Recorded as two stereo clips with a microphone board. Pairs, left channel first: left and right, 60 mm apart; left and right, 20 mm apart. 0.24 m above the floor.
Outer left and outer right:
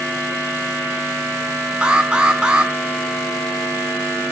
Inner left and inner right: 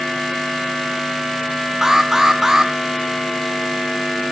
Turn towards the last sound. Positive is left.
turn(degrees=-15)  # may be behind; listen again after turning